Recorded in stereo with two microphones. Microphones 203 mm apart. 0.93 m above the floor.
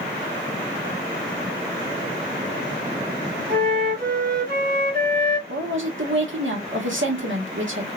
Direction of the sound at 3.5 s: 50° right (ahead or behind).